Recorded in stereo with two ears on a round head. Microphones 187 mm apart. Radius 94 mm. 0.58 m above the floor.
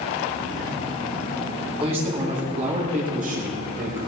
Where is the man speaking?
30° right (ahead or behind), 6 m; by 4.0 s 50° right (ahead or behind), 8 m.